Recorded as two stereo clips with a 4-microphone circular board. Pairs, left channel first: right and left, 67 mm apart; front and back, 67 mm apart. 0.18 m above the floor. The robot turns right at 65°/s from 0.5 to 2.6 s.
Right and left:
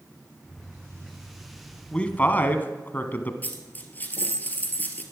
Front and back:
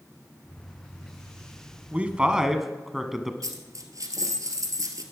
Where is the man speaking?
140° right, 1.1 m; by 3.3 s 95° right, 1.1 m.